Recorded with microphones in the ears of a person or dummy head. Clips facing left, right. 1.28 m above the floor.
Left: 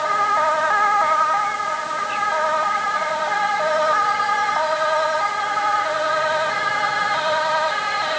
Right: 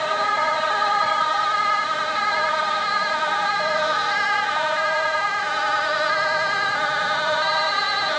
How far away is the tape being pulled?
No tape being pulled in this recording.